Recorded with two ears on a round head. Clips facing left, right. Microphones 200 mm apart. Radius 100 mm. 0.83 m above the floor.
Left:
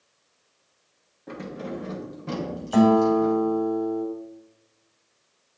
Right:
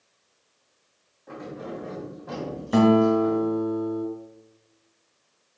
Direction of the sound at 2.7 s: 40° right (ahead or behind).